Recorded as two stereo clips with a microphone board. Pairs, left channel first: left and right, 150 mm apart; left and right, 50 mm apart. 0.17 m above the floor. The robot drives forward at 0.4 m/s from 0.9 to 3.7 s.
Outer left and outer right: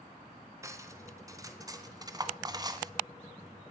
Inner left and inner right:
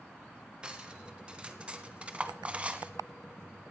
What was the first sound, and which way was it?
Cutlery clinking, 20° right (ahead or behind).